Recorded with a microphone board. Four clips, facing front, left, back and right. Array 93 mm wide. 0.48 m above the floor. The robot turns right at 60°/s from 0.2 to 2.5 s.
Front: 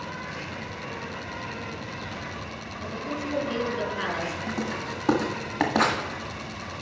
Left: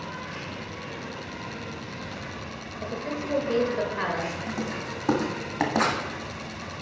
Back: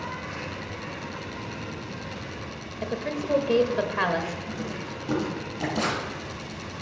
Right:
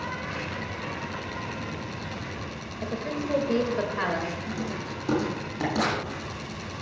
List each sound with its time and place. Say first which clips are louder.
0.0 s an insect: right 3 dB, back 1 dB; 105° right, 1.9 m; by 6.8 s 35° left, 1.9 m
2.8 s a woman speaking: right 1 dB, back 3 dB; straight behind, 1.4 m
4.5 s writing: left 1 dB, front 3 dB; 35° left, 1.8 m